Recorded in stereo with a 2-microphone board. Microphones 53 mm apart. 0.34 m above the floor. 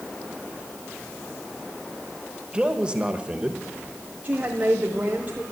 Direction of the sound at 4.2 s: 25° right (ahead or behind).